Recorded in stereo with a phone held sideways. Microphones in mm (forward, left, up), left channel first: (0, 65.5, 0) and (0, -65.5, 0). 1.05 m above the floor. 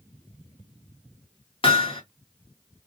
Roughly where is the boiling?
No boiling in this recording.